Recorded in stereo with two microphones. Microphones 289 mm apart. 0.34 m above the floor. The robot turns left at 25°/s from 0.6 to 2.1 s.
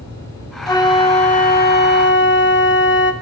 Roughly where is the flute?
Behind.